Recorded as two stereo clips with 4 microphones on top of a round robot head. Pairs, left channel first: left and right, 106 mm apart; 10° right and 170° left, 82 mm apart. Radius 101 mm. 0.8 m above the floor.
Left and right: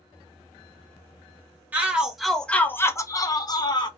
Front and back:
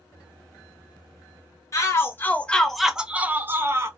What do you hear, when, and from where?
1.7 s a shout: 25° right, 0.8 m; by 3.9 s 120° left, 1.0 m